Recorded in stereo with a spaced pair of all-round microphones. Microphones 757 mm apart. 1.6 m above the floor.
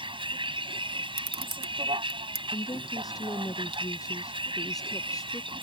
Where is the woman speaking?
5° left (ahead or behind).